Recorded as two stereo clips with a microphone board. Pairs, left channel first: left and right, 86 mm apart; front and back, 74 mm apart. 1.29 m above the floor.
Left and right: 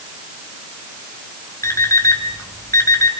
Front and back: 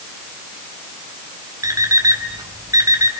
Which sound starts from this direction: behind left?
An alarm clock, at 1.6 s.